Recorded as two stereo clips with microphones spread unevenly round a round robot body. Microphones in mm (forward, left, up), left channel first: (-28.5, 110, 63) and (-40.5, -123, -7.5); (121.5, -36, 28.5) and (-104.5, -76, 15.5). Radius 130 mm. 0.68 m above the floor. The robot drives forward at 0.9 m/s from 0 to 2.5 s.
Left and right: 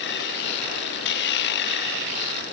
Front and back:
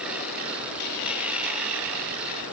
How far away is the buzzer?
I don't hear a buzzer.